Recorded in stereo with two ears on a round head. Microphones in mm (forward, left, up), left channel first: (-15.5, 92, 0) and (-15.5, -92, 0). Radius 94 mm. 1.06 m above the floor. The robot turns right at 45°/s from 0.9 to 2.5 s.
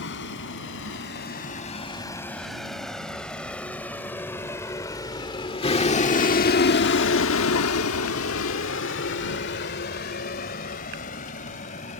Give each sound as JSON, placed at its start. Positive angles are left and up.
{"t": 0.0, "sound": "a vehicle", "side_deg": 65}